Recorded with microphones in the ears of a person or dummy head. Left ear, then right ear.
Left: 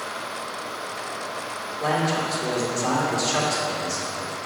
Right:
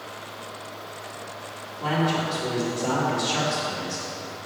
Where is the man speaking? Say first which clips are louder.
Left 1 dB; 55° left (ahead or behind), 2.5 m.